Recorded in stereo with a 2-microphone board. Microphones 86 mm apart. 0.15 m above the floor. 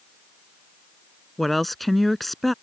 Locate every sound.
1.4 s a woman speaking: centre (ahead or behind)